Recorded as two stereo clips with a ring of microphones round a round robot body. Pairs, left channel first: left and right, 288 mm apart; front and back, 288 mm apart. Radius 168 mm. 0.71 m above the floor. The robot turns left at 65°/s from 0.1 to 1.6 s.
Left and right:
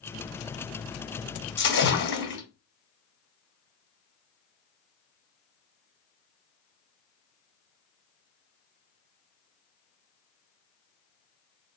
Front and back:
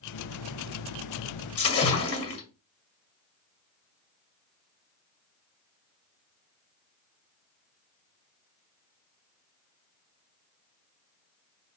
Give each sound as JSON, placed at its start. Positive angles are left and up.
{"t": 1.6, "sound": "a splash", "azimuth_deg": 40, "distance_m": 1.8}